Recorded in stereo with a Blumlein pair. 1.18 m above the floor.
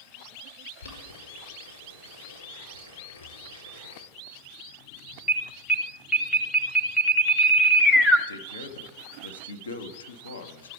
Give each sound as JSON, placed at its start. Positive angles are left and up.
{"t": 0.8, "sound": "boiling", "azimuth_deg": 70, "distance_m": 4.0}
{"t": 3.2, "sound": "breathing", "azimuth_deg": 60, "distance_m": 1.5}
{"t": 5.3, "sound": "an alarm", "azimuth_deg": 15, "distance_m": 1.0}
{"t": 8.3, "sound": "a man speaking", "azimuth_deg": 70, "distance_m": 1.1}